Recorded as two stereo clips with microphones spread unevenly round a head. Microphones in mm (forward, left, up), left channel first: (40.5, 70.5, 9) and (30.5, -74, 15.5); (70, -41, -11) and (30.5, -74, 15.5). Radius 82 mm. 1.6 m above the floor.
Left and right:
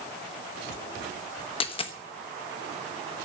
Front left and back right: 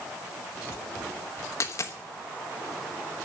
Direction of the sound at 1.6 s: 85° left.